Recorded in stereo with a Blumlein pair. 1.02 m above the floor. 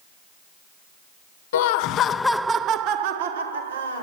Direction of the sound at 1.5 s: 55° left.